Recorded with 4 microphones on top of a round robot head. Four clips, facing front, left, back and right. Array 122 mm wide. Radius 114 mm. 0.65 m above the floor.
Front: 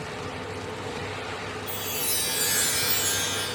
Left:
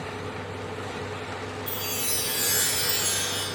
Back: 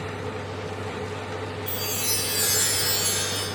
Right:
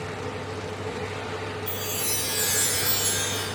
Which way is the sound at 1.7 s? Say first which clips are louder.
Right 1 dB, back 2 dB; 170° right.